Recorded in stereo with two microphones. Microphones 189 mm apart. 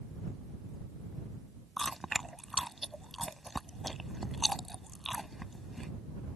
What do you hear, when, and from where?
1.8 s chewing: centre (ahead or behind)